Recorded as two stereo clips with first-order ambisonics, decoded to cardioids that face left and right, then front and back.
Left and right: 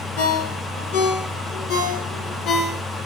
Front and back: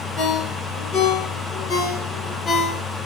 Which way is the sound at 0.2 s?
60° left.